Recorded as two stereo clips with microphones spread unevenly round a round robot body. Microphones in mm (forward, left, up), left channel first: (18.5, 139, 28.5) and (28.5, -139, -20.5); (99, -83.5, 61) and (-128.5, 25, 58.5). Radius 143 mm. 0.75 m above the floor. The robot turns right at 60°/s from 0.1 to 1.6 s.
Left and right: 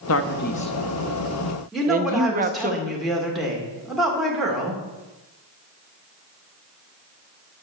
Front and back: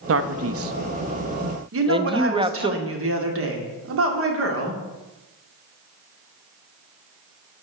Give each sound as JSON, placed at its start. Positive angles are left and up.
{"t": 0.1, "sound": "a man speaking", "azimuth_deg": 130, "distance_m": 0.8}
{"t": 1.7, "sound": "a woman speaking", "azimuth_deg": -175, "distance_m": 2.0}